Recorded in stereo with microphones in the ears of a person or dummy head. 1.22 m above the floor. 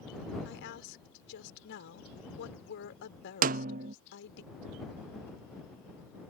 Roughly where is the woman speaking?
Left.